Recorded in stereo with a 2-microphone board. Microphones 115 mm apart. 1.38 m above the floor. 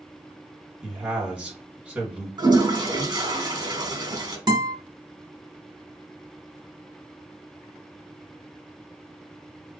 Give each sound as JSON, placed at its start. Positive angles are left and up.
{"t": 0.8, "sound": "a man speaking", "side_deg": -10, "distance_m": 2.0}
{"t": 2.4, "sound": "a toilet flushing", "side_deg": -35, "distance_m": 1.2}
{"t": 4.5, "sound": "a guitar", "side_deg": -35, "distance_m": 1.6}